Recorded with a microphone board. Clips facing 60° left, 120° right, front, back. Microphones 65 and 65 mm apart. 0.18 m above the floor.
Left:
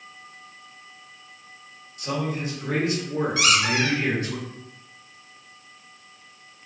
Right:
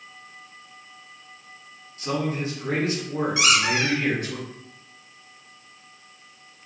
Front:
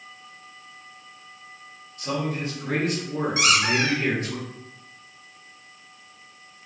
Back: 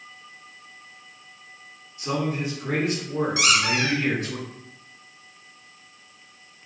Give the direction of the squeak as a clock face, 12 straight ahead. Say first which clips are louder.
Even, front 2 dB; 2 o'clock.